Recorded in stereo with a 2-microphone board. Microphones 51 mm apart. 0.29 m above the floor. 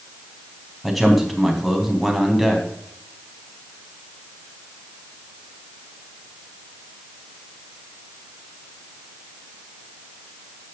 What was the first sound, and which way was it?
A man speaking, centre (ahead or behind).